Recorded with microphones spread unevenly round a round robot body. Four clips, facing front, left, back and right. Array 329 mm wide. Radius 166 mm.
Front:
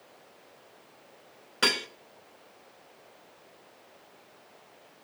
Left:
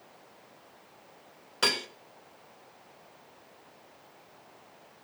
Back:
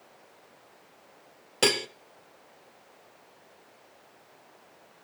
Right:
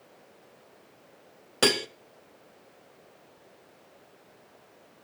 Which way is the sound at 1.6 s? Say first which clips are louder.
Right 6 dB, back 3 dB; 125° right.